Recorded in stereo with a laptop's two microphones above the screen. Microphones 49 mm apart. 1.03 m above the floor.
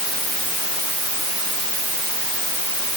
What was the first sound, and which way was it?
Only background noise.